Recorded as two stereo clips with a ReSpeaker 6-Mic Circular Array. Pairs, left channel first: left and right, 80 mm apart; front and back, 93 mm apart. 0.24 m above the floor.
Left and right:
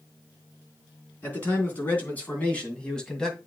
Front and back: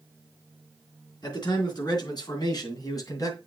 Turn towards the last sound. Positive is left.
turn(degrees=10)